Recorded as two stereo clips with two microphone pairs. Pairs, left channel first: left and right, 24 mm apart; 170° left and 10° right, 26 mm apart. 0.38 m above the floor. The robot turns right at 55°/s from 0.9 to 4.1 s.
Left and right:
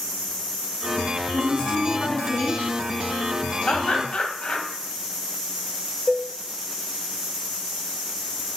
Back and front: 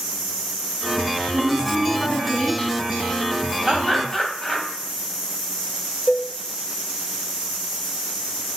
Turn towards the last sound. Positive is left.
turn(degrees=-175)